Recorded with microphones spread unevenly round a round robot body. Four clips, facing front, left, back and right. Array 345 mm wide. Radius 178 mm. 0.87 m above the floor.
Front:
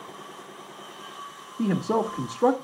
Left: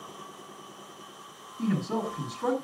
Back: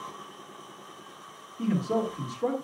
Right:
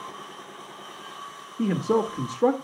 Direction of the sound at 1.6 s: 45° right.